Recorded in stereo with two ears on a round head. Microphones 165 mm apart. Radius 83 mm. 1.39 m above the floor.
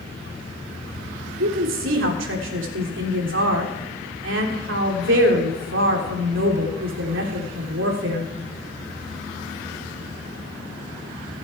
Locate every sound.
1.4 s a woman speaking: 80° right, 3.5 m